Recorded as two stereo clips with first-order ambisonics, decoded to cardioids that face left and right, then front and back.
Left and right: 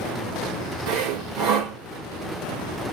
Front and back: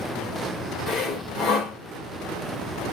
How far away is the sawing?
About 1.3 m.